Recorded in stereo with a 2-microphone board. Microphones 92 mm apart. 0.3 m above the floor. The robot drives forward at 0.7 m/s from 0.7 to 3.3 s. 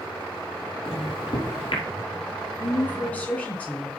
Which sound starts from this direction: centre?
A woman speaking, at 2.6 s.